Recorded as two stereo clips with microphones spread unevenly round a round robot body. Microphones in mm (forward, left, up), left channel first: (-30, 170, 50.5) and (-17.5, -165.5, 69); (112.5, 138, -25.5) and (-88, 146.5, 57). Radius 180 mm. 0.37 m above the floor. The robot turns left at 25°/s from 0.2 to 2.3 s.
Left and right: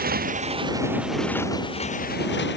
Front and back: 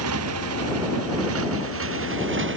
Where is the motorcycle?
155° right; by 2.6 s 155° left.